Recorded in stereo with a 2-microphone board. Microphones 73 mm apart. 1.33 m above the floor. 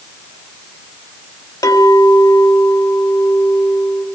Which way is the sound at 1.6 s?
55° left (ahead or behind).